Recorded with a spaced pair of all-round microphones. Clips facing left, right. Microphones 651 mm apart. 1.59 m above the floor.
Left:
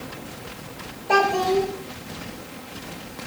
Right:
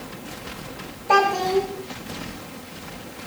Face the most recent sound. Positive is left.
turn(degrees=-35)  # may be behind; listen again after turning